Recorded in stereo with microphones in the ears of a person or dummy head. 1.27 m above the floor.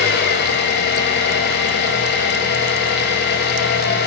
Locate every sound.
0.0 s an engine running: 55° left (ahead or behind), 2.5 m